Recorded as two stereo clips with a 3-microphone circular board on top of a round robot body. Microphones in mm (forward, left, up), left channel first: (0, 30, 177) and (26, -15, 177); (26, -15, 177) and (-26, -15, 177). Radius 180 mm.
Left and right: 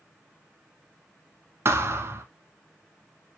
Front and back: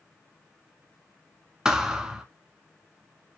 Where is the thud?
100° right, 0.7 m.